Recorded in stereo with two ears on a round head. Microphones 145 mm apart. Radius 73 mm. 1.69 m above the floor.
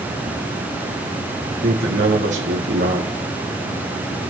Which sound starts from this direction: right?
A man speaking, at 1.6 s.